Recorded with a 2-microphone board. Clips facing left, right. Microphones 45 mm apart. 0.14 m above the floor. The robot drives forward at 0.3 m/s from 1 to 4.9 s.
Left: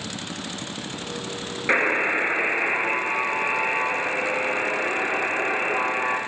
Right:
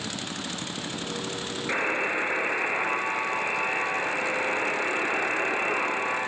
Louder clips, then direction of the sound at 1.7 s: Left 6 dB; 45° left (ahead or behind).